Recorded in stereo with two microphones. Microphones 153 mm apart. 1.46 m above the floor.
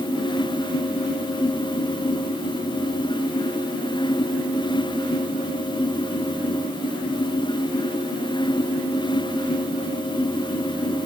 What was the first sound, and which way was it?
Only background noise.